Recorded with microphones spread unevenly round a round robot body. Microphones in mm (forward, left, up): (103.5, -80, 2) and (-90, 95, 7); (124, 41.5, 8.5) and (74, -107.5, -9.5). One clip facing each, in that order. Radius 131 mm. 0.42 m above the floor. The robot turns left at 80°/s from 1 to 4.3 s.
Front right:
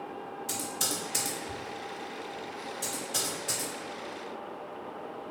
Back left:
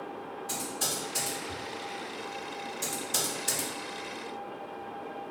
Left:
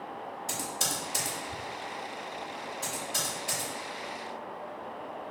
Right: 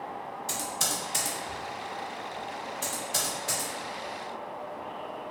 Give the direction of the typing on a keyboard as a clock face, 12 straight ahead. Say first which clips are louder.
Front right 1 dB, right 2 dB; 12 o'clock.